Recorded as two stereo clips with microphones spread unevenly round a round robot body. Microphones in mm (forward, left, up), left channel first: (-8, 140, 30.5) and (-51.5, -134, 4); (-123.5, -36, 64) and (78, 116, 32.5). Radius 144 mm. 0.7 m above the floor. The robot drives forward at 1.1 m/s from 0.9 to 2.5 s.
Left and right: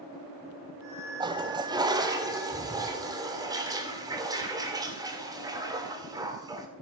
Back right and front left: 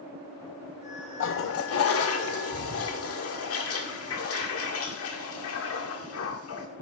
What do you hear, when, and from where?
1.2 s a toilet flushing: 160° right, 0.8 m; by 6.7 s 175° right, 2 m